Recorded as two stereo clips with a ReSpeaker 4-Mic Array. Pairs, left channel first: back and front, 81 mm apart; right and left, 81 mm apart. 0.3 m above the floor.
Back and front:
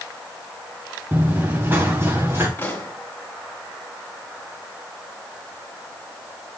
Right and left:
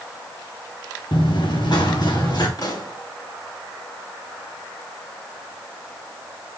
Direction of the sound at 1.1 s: 65° right.